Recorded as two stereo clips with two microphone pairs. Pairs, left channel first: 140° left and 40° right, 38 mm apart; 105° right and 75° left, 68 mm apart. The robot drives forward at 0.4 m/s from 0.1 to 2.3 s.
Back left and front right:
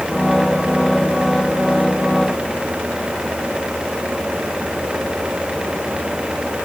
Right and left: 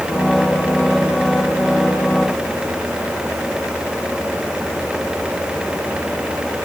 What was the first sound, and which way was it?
Only background noise.